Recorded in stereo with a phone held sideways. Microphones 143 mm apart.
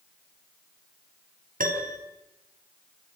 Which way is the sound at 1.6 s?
80° right.